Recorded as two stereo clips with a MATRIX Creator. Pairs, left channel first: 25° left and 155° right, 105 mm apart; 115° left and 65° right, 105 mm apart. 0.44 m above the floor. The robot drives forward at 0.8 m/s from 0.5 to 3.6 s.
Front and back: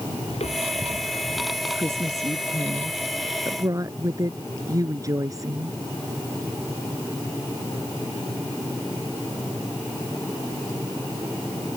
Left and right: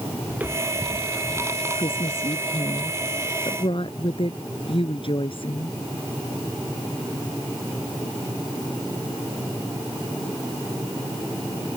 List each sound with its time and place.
0.3 s footsteps: 5° left; by 1.6 s 15° left
1.7 s a woman speaking: 140° left; by 5.8 s 145° left